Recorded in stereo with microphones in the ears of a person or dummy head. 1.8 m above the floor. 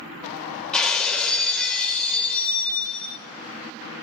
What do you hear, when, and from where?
0.7 s breaking glass: 5° left (ahead or behind), 3 m